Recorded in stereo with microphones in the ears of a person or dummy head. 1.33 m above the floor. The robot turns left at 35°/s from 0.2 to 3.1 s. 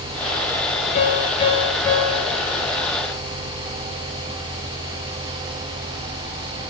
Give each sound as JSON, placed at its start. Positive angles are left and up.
{"t": 0.9, "sound": "a piano", "azimuth_deg": 45, "distance_m": 8.5}